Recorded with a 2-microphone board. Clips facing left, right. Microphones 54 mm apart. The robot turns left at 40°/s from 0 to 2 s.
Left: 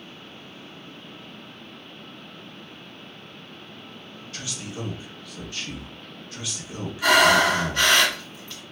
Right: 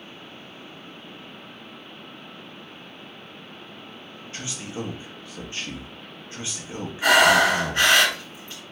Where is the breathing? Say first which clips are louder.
Right 1 dB; 25° right (ahead or behind), 2 m.